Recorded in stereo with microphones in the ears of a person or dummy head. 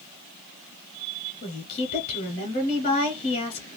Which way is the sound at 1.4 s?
40° left (ahead or behind).